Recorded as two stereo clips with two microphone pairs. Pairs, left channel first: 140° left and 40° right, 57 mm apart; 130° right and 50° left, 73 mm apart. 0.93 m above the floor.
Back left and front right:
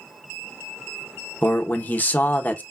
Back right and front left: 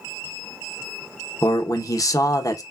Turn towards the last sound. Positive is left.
turn(degrees=-165)